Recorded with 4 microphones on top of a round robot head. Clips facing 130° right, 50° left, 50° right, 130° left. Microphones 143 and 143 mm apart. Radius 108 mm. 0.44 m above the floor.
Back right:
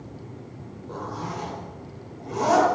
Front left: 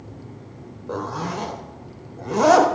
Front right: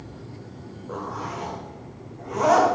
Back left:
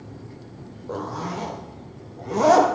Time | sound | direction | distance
0.9 | a zipper | 75° left | 0.6 m